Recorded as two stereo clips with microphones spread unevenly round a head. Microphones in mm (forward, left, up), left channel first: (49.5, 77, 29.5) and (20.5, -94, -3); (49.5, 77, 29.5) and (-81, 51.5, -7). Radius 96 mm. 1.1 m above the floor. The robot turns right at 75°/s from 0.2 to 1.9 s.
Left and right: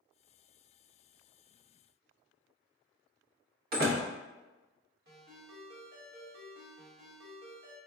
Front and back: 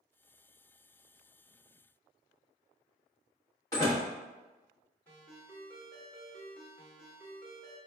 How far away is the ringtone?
About 1.4 m.